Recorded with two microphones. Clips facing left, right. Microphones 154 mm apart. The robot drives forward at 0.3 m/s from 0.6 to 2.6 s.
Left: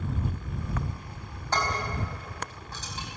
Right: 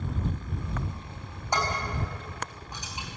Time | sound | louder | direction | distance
1.5 | dishes clattering | even | 10° right (ahead or behind) | 6 m